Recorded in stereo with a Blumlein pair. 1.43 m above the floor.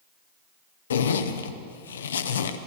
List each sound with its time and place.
0.9 s a zipper: 65° left, 0.7 m